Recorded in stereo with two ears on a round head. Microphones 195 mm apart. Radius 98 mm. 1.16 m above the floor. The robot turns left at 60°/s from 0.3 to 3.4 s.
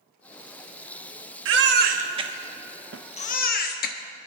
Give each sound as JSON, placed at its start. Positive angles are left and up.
{"t": 1.4, "sound": "a baby crying", "side_deg": -65, "distance_m": 1.1}
{"t": 2.9, "sound": "a snare drum", "side_deg": -60, "distance_m": 0.5}